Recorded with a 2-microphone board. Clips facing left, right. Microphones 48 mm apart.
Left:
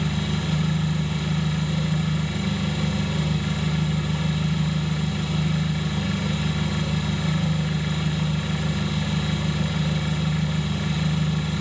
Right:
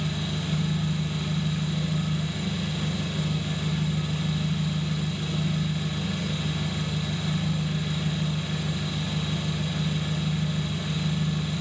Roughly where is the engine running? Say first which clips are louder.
Left 4 dB; left.